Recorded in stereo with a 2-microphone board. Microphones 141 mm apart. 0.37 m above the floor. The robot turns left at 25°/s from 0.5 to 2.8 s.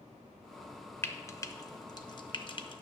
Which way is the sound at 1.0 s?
15° left (ahead or behind).